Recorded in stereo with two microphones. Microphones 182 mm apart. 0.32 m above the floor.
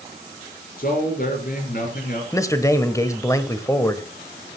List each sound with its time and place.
0.8 s a man speaking: 55° left (ahead or behind), 5 m
2.3 s a man speaking: 15° left (ahead or behind), 1.2 m